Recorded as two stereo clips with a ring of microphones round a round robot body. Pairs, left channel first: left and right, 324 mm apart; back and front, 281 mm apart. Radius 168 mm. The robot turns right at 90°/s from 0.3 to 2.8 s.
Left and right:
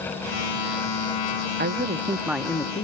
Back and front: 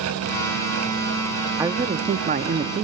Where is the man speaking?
70° right, 1.1 m; by 2.8 s 35° left, 1.1 m.